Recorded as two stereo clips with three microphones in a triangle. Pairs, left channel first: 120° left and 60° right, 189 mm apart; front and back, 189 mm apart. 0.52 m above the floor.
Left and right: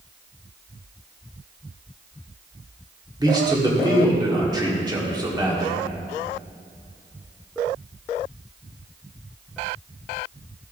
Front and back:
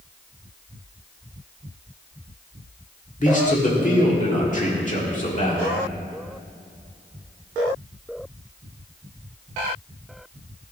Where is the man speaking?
Straight ahead, 1.6 m.